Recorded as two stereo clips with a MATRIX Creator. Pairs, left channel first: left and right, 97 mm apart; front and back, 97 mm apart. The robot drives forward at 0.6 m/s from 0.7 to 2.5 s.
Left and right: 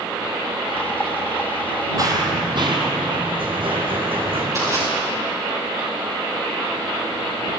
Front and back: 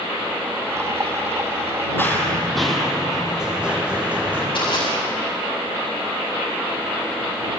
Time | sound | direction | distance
2.0 | running footsteps | 60° right | 1.4 m
4.5 | crushing | 35° right | 6 m